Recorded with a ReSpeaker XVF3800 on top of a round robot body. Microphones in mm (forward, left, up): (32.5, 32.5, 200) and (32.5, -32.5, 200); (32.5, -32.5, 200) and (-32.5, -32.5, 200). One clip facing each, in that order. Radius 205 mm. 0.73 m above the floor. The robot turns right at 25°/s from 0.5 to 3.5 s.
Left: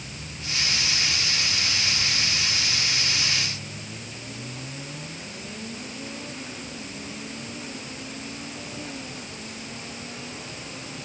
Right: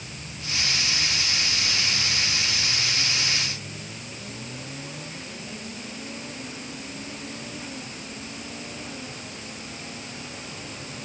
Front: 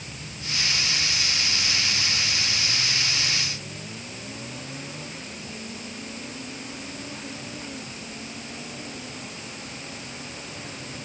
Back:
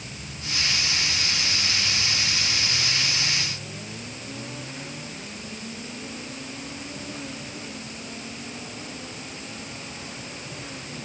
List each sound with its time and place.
Only background noise.